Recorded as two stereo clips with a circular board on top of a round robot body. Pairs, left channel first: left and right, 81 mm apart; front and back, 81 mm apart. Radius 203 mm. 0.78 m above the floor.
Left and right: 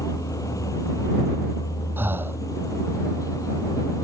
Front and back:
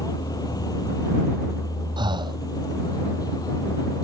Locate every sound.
0.0 s a vehicle: 40° left
2.0 s breathing: 155° right